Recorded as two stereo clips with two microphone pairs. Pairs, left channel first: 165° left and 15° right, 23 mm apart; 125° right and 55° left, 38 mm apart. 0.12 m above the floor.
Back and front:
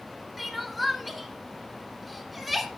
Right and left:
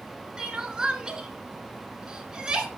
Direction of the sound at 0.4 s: 70° left.